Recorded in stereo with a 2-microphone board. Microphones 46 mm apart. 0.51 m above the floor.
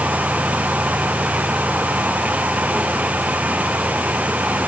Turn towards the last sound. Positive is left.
No sound to turn to.